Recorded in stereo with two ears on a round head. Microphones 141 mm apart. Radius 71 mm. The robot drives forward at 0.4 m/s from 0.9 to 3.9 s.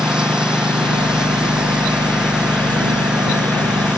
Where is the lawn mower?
5° right (ahead or behind).